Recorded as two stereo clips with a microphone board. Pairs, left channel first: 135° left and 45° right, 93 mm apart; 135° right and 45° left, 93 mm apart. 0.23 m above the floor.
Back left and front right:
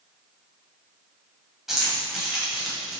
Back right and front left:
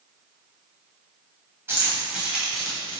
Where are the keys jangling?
35° left, 1.0 m; by 3.0 s 125° right, 0.9 m.